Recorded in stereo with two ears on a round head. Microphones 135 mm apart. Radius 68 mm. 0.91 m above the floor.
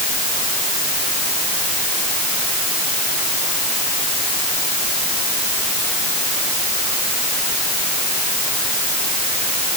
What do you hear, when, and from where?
Only background noise.